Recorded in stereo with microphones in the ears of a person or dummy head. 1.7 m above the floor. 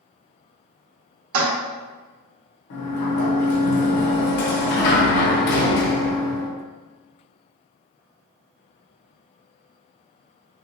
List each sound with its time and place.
1.3 s a toilet flushing: 80° right, 1.4 m
2.7 s a sliding door: 55° left (ahead or behind), 0.9 m